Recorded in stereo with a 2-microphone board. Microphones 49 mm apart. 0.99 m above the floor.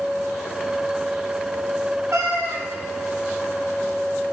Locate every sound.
2.1 s a cat meowing: 65° right (ahead or behind), 1.2 m